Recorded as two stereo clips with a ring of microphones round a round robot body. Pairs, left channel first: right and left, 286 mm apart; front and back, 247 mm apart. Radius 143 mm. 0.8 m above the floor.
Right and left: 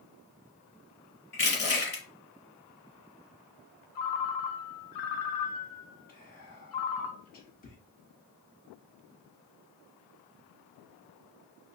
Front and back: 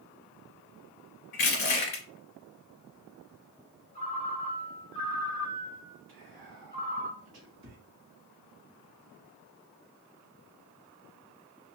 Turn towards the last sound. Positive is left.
turn(degrees=-140)